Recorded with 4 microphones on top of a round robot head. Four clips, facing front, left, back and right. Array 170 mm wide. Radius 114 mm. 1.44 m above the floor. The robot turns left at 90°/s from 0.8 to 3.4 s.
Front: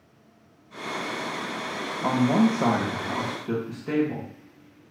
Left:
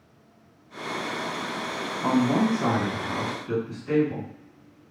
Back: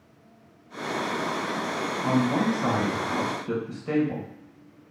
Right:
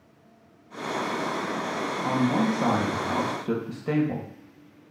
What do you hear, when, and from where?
2.0 s a man speaking: 35° left, 1.8 m; by 4.9 s 90° right, 1.8 m